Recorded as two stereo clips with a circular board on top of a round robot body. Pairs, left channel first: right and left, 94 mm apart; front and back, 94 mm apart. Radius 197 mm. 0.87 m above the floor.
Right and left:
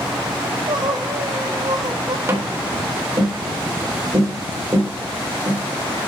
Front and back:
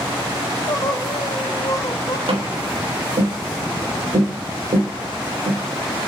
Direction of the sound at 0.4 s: 50° left.